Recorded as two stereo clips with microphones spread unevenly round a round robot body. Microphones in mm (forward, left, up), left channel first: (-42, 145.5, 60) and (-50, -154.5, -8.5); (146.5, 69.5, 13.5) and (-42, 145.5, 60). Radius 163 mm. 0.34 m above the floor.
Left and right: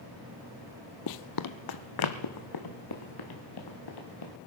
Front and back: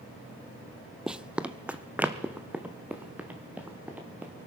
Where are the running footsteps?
80° left, 0.6 m; by 4.3 s 75° left, 3.5 m.